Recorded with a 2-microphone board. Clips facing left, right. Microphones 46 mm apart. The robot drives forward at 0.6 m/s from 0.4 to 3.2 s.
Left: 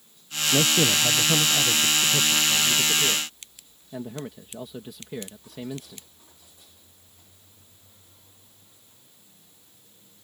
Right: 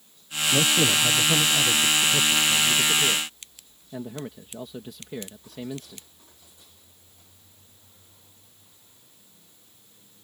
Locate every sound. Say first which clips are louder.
0.5 s a man speaking: even; 25° left (ahead or behind); by 6.0 s 10° left (ahead or behind)